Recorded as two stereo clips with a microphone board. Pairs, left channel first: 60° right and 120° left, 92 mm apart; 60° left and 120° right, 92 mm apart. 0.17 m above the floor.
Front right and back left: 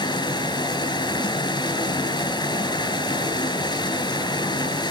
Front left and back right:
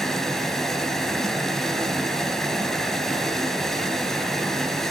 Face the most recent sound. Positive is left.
turn(degrees=-30)